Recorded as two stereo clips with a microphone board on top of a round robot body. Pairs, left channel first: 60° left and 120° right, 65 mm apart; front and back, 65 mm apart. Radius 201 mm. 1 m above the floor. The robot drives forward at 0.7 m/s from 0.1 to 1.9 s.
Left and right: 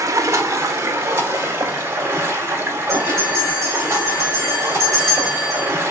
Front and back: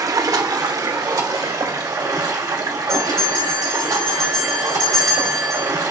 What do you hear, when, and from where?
0.0 s running water: 155° right, 0.8 m; by 5.9 s 170° right, 1.9 m
2.9 s a bell: 55° right, 0.6 m